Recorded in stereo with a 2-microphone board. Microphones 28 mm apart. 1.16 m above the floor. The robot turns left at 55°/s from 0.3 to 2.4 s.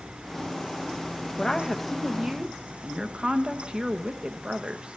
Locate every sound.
1.4 s a woman speaking: 25° left, 0.8 m; by 5.0 s 30° right, 0.8 m